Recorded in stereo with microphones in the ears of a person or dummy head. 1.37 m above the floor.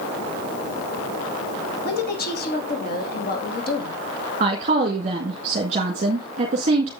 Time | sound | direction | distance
1.9 | a woman speaking | 45° left (ahead or behind) | 2.5 m
4.4 | a woman speaking | 35° right (ahead or behind) | 1.8 m